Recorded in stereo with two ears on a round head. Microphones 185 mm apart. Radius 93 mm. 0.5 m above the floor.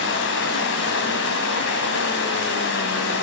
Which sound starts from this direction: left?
Running water, at 0.0 s.